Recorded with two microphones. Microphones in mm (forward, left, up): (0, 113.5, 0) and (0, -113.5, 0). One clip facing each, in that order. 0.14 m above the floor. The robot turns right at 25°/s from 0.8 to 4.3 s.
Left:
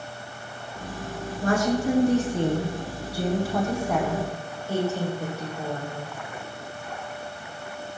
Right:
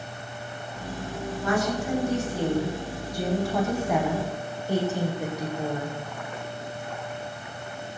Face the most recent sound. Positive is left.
turn(degrees=-160)